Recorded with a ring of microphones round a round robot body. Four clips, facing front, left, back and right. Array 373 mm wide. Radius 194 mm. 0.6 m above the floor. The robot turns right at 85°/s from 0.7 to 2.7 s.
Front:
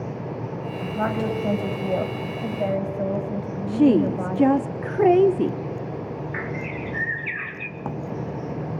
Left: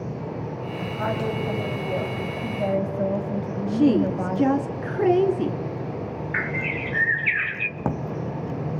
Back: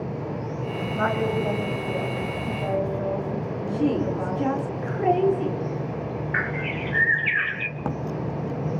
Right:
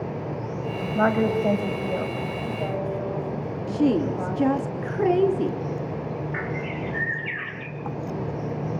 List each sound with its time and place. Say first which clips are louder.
0.9 s a woman speaking: right 6 dB, back 1 dB; 105° right, 4 m; by 4.6 s 45° left, 4 m
3.7 s a woman speaking: left 2 dB, front 7 dB; 10° left, 1.2 m
6.3 s a bird: left 1 dB, back 2 dB; 125° left, 0.8 m
7.8 s a drawer: left 4 dB, back 1 dB; 100° left, 0.7 m